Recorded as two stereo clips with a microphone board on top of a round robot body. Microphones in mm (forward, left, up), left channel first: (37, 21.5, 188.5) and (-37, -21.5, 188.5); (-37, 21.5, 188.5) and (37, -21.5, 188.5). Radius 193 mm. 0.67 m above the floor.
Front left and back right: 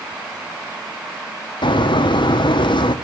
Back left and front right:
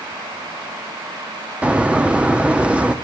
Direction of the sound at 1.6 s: 45° left.